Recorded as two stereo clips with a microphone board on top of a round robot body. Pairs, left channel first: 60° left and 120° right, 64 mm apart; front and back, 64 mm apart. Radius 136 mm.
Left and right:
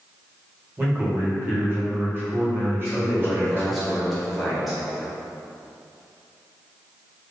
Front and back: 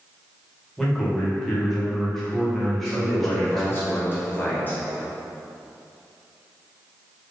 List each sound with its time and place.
0.8 s a man speaking: 85° right, 1.7 m
2.9 s a man speaking: 30° right, 1.6 m